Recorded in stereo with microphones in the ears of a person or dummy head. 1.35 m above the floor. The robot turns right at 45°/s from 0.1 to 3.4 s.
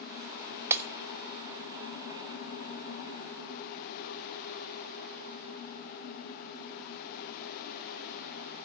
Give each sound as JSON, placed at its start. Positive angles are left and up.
{"t": 0.7, "sound": "breaking glass", "side_deg": -10, "distance_m": 1.2}